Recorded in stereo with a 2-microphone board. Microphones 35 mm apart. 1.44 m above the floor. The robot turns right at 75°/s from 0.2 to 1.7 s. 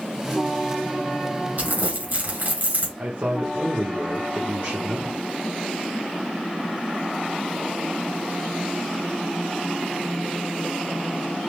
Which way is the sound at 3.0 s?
75° right (ahead or behind).